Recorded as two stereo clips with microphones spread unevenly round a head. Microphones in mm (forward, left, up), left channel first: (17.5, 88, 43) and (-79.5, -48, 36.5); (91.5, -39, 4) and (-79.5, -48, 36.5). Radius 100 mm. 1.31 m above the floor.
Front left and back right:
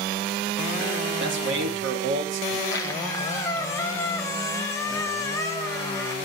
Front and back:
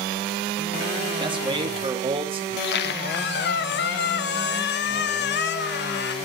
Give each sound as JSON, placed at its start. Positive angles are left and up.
{"t": 1.2, "sound": "a man speaking", "azimuth_deg": -115, "distance_m": 2.0}
{"t": 2.5, "sound": "a squeak", "azimuth_deg": -20, "distance_m": 0.8}